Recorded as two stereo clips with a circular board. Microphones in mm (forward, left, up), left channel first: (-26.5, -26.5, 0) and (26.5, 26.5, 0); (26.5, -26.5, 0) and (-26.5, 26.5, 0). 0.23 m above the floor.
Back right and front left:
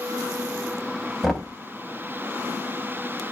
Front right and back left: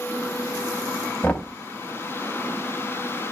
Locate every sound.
1.2 s knocking: 55° right, 0.7 m